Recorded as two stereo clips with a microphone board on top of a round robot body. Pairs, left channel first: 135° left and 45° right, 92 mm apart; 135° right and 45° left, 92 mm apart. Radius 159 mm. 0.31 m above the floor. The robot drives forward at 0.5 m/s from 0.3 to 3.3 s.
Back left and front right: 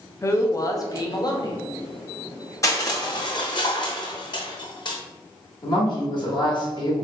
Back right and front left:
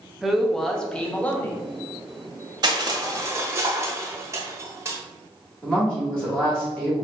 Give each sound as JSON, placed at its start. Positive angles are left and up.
{"t": 0.2, "sound": "a man speaking", "azimuth_deg": 130, "distance_m": 1.0}
{"t": 2.6, "sound": "crushing", "azimuth_deg": 80, "distance_m": 1.0}
{"t": 5.6, "sound": "a woman speaking", "azimuth_deg": 145, "distance_m": 1.9}